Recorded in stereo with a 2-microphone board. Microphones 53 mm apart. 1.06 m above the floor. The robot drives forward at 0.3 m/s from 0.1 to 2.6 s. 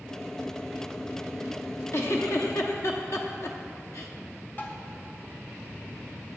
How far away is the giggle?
About 0.9 m.